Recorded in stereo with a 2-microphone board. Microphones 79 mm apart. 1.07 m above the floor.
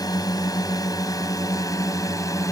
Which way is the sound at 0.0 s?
55° left (ahead or behind).